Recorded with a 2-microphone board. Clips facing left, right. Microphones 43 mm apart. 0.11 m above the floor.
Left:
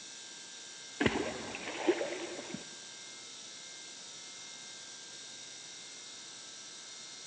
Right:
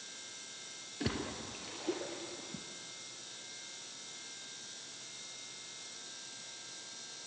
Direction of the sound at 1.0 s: 55° left (ahead or behind).